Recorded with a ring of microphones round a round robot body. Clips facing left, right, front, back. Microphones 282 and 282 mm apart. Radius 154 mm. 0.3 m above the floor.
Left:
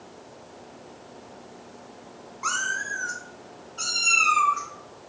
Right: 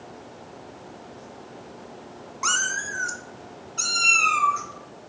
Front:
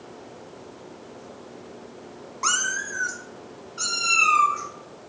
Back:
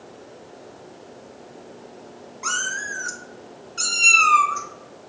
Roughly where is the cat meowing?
Ahead right.